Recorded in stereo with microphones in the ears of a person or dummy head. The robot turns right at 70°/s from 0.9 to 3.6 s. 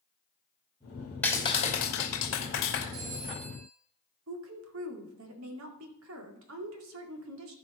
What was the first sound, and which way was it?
A clap, 10° left.